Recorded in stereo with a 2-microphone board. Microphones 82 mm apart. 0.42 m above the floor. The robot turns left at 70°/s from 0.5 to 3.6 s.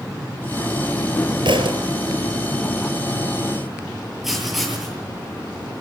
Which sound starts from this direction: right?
A thud, at 1.4 s.